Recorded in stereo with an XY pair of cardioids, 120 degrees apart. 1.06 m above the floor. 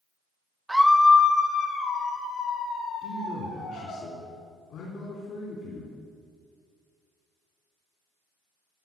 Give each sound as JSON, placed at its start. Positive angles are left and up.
{"t": 0.7, "sound": "a scream", "azimuth_deg": -10, "distance_m": 0.8}
{"t": 3.0, "sound": "a man speaking", "azimuth_deg": 70, "distance_m": 3.0}